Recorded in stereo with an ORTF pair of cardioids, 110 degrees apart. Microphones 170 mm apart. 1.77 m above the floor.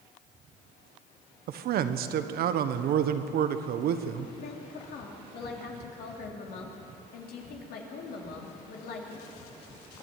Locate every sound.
1.5 s a man speaking: 65° right, 1.3 m
4.4 s a woman speaking: 70° left, 3.5 m